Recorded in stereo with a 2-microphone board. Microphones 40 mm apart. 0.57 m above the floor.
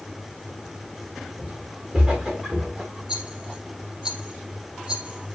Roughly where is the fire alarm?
I don't hear a fire alarm.